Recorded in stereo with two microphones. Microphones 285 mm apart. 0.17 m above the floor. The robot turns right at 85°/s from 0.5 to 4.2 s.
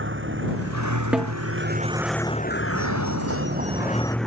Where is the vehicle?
135° right; by 4.3 s straight behind.